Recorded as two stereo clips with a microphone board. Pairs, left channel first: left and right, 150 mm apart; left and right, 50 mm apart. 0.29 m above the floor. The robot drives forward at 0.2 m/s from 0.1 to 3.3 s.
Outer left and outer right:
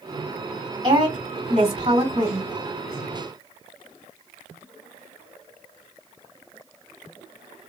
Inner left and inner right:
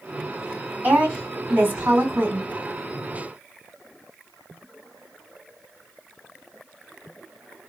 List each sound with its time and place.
0.8 s a woman speaking: 50° right (ahead or behind), 2.5 m